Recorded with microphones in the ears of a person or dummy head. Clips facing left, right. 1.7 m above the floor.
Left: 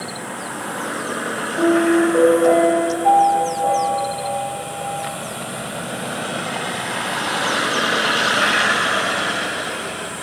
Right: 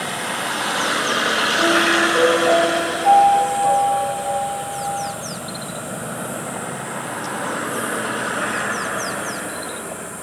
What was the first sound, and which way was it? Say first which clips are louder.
A piano: left 6 dB; 45° left (ahead or behind).